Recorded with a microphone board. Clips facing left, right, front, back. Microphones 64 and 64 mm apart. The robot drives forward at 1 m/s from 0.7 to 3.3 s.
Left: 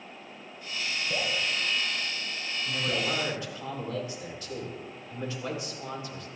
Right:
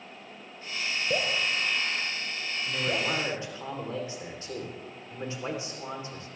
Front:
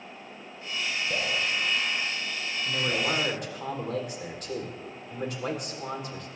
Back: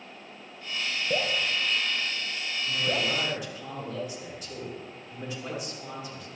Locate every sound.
1.1 s dripping: 120° right, 3.5 m; by 3.1 s 145° right, 4.5 m
2.6 s a man speaking: 25° right, 5 m